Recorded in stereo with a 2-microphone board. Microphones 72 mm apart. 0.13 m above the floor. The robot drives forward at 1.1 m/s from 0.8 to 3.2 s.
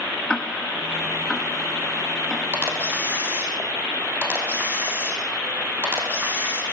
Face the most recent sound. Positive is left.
turn(degrees=-30)  # may be behind; listen again after turning